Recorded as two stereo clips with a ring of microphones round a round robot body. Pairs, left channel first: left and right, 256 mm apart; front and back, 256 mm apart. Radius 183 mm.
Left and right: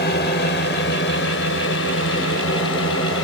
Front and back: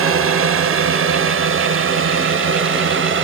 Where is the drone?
150° left; by 3.2 s 145° left.